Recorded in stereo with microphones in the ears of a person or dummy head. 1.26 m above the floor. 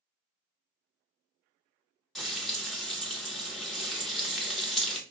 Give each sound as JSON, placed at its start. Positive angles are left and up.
{"t": 2.1, "sound": "frying", "side_deg": 0, "distance_m": 0.8}